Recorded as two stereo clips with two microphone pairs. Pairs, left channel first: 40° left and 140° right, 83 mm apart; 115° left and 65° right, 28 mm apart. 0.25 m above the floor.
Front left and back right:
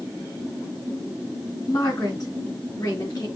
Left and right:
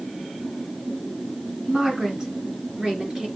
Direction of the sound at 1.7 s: Straight ahead.